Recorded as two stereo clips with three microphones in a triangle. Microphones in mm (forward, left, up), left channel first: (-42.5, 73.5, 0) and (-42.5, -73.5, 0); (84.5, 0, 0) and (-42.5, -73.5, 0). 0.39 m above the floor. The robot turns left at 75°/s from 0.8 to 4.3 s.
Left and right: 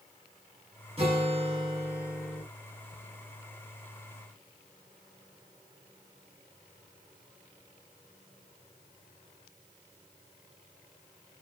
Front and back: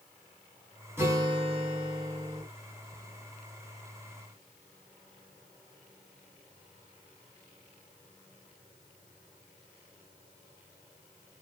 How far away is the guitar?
About 1.6 m.